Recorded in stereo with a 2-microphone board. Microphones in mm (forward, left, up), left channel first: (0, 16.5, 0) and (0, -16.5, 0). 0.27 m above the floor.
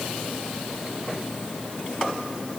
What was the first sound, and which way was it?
Only background noise.